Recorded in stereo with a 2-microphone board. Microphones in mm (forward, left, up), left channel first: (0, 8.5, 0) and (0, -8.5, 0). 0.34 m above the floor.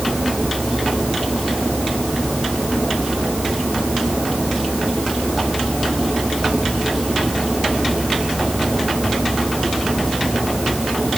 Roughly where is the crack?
No crack in this recording.